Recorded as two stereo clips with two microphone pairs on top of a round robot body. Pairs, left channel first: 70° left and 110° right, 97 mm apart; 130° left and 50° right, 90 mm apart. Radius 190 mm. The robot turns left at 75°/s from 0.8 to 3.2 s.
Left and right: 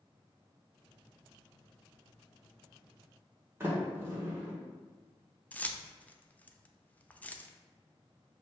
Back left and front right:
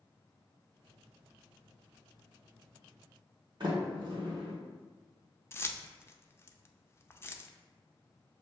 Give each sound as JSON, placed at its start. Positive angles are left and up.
{"t": 3.6, "sound": "a sliding door", "azimuth_deg": -50, "distance_m": 1.8}
{"t": 5.5, "sound": "keys jangling", "azimuth_deg": 115, "distance_m": 0.6}